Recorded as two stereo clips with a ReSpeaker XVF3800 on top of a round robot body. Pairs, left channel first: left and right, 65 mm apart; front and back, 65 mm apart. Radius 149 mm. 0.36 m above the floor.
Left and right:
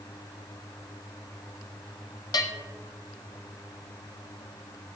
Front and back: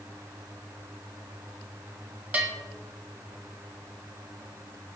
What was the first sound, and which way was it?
A bell, 110° left.